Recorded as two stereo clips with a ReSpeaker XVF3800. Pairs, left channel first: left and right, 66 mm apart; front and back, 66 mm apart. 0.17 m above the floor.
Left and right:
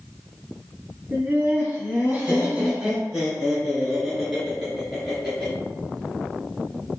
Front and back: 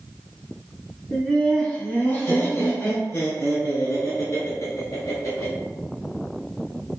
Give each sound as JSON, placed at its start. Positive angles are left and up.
{"t": 1.1, "sound": "laughter", "azimuth_deg": -75, "distance_m": 1.5}